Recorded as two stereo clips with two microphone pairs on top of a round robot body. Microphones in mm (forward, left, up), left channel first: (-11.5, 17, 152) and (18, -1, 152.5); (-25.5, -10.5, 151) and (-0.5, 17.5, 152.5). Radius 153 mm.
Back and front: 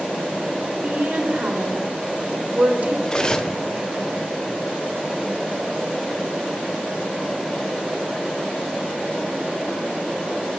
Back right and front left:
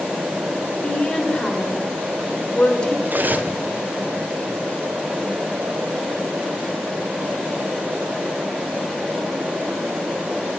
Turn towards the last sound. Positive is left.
turn(degrees=85)